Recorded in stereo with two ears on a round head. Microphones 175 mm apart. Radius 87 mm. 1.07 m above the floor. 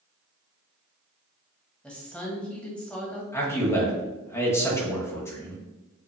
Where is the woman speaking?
5° left (ahead or behind), 1.2 m.